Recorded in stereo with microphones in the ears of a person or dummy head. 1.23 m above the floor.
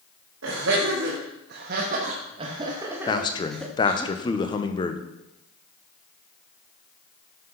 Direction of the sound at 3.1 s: 20° left (ahead or behind).